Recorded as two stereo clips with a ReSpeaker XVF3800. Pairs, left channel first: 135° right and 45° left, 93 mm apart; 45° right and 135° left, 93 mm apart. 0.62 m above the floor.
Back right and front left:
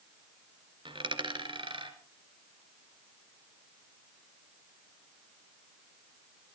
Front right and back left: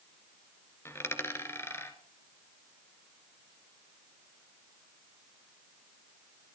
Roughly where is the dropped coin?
Ahead.